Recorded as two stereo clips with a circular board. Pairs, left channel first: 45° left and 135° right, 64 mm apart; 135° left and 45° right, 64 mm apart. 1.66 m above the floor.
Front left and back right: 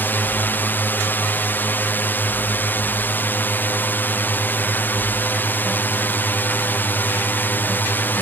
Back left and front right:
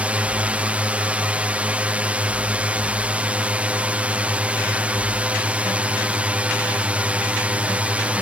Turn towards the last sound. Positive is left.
turn(degrees=10)